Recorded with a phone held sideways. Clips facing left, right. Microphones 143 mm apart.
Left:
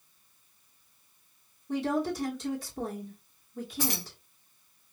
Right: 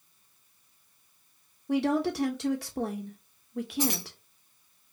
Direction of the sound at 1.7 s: 75° right (ahead or behind).